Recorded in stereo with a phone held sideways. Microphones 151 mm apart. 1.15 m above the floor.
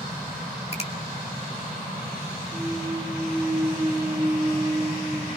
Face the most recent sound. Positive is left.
turn(degrees=-5)  # may be behind; listen again after turning